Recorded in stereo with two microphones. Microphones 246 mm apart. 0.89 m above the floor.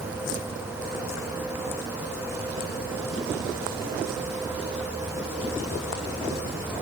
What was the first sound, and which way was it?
Only background noise.